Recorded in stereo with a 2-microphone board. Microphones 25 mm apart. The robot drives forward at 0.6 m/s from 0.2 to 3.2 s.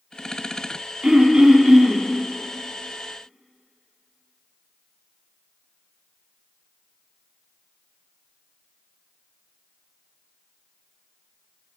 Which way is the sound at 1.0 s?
35° right (ahead or behind).